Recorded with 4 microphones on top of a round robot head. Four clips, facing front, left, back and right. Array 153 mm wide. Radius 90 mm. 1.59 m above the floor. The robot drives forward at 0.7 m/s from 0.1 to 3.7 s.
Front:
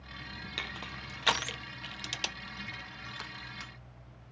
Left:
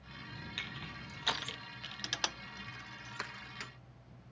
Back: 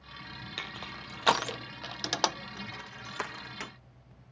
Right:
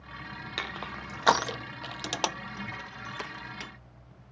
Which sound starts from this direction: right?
Crushing, at 0.6 s.